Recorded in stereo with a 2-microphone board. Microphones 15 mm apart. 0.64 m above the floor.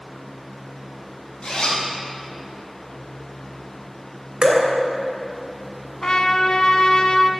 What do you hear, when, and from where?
1.4 s a zipper: 80° left, 4 m
4.4 s dripping: 65° right (ahead or behind), 3 m
6.0 s a trumpet: 70° left (ahead or behind), 1.0 m